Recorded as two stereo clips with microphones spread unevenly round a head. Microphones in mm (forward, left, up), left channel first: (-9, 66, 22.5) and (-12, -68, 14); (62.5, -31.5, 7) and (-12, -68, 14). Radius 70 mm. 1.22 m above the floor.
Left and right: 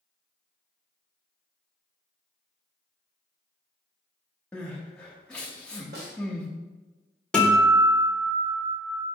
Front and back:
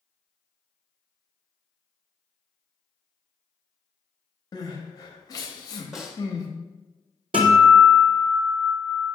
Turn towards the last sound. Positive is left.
turn(degrees=175)